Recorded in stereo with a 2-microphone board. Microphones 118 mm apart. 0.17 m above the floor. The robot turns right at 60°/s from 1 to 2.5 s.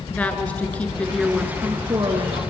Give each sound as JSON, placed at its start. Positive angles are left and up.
{"t": 0.1, "sound": "a woman speaking", "azimuth_deg": 165, "distance_m": 2.5}